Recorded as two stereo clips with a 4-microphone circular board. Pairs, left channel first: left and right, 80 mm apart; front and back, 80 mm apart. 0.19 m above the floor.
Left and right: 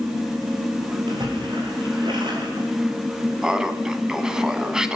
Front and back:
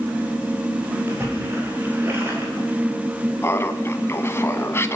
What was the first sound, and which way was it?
A splash, 120° right.